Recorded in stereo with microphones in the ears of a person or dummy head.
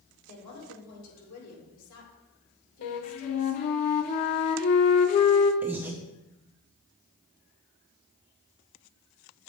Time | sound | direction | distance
0.3 | a woman speaking | 75° left (ahead or behind) | 2.5 m
2.8 | a flute | 40° left (ahead or behind) | 0.6 m
5.6 | breathing | 10° right (ahead or behind) | 0.6 m